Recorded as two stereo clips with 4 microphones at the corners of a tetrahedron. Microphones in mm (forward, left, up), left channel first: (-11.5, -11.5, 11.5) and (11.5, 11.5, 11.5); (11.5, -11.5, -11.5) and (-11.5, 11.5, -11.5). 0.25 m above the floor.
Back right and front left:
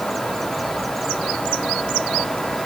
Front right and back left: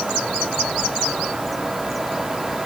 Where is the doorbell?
I don't hear a doorbell.